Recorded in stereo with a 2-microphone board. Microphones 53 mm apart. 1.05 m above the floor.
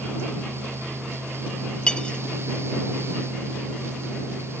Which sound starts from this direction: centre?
Cutlery clinking, at 1.9 s.